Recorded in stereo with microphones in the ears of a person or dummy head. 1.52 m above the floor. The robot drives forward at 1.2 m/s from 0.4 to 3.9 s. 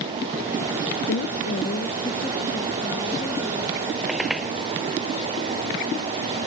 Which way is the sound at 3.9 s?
Centre (ahead or behind).